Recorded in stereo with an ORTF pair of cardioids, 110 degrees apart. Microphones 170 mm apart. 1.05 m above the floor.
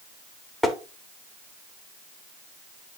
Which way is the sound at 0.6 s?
Straight ahead.